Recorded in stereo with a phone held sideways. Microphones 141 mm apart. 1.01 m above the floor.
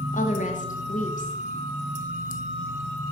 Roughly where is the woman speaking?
Left.